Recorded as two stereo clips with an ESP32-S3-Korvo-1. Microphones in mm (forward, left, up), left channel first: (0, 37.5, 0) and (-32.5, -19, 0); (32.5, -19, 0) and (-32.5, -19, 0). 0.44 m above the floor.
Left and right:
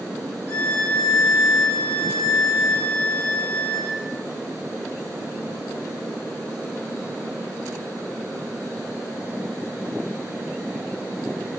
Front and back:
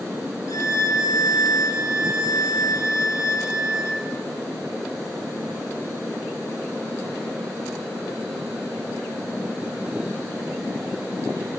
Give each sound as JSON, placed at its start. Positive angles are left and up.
{"t": 0.5, "sound": "a violin", "azimuth_deg": 0, "distance_m": 1.1}